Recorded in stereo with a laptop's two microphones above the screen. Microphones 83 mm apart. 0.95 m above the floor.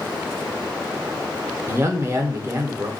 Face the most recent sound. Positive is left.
turn(degrees=-35)  # may be behind; listen again after turning